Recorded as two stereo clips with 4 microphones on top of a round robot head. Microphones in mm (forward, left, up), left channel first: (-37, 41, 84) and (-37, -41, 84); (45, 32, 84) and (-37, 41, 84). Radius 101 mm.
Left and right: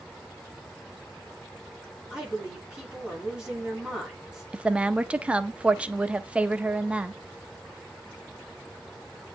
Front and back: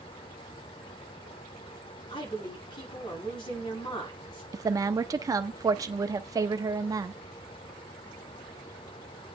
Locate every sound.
2.1 s a woman speaking: 10° right, 5.5 m
4.5 s a woman speaking: 160° right, 1.0 m